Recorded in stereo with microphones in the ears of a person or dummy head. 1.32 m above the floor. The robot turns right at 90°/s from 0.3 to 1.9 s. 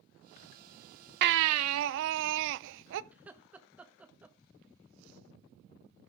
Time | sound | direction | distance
1.2 | a baby crying | 125° right | 0.5 m
3.1 | laughter | 10° right (ahead or behind) | 1.3 m